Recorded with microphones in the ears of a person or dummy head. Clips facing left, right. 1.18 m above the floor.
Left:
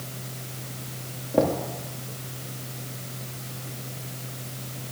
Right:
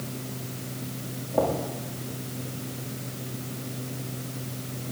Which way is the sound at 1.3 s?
35° left (ahead or behind).